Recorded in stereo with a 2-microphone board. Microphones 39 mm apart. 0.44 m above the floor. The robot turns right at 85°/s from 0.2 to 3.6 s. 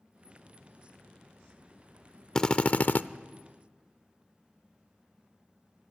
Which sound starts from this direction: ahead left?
A drill, at 2.4 s.